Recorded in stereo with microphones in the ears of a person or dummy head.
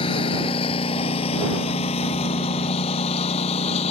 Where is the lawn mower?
25° left (ahead or behind); by 3.9 s 35° left (ahead or behind).